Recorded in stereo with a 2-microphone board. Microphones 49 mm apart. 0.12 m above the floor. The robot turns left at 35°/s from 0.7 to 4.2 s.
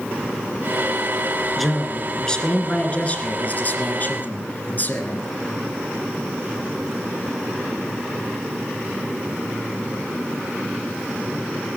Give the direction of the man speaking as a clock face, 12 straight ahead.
6 o'clock.